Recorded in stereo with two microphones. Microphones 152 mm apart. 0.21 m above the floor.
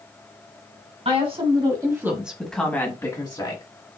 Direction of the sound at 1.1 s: 40° right (ahead or behind).